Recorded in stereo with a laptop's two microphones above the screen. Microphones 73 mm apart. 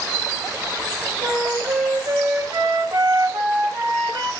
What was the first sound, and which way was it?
A flute, 70° right (ahead or behind).